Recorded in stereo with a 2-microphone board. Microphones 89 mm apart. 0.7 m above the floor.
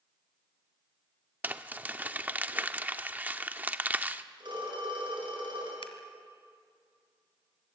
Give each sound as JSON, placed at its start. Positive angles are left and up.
{"t": 1.4, "sound": "crumpling", "side_deg": -20, "distance_m": 0.8}
{"t": 4.4, "sound": "a phone ringing", "side_deg": -55, "distance_m": 8.0}
{"t": 5.8, "sound": "scissors", "side_deg": 80, "distance_m": 1.8}